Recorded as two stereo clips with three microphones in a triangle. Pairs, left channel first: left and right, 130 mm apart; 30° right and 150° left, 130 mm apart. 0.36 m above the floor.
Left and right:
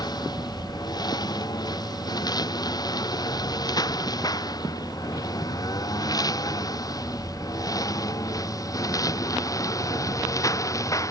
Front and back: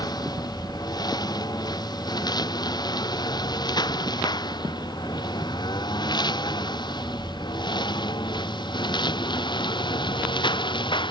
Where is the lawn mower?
30° left; by 11.1 s 25° left.